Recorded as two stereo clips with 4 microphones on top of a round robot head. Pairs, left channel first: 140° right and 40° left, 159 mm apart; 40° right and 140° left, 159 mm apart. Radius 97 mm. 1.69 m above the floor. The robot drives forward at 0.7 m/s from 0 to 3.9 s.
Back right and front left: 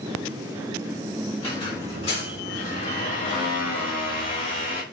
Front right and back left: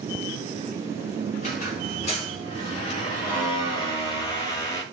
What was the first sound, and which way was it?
A squeak, 80° right.